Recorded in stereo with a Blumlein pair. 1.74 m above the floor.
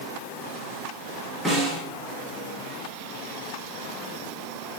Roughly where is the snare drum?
Ahead.